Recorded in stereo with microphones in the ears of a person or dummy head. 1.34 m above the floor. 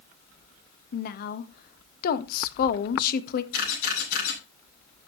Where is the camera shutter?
55° left (ahead or behind), 8.5 m.